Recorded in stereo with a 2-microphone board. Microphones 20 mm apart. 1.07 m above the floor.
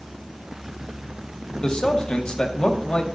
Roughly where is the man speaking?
Left.